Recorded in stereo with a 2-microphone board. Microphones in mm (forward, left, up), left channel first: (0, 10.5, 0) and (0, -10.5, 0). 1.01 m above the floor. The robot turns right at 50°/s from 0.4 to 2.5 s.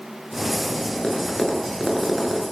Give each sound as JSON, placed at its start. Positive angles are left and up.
{"t": 1.0, "sound": "tapping", "side_deg": 50, "distance_m": 9.5}